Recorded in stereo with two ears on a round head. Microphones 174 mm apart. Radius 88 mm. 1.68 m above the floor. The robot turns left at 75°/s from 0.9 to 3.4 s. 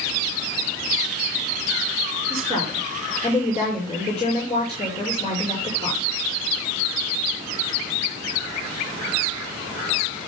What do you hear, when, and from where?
2.3 s a woman speaking: 130° right, 5.5 m; by 6.0 s 145° left, 5.5 m